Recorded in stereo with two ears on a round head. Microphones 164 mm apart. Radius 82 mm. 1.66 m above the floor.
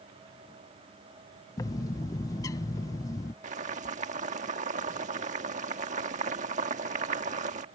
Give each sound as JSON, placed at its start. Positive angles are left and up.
{"t": 1.6, "sound": "a bird", "side_deg": 20}
{"t": 3.4, "sound": "boiling", "side_deg": -45}